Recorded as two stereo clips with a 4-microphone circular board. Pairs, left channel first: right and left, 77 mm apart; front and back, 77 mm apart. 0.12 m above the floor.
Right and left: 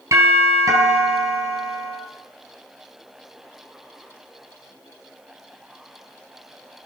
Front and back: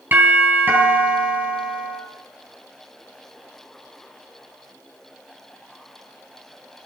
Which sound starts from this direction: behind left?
A doorbell, at 0.1 s.